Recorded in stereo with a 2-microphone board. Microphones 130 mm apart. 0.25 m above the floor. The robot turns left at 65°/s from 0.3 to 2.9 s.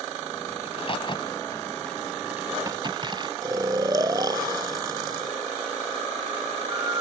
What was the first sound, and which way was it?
A crack, 50° left (ahead or behind).